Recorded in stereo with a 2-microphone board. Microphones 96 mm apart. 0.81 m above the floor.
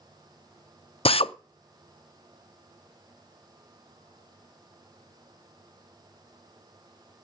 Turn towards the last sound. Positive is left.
turn(degrees=80)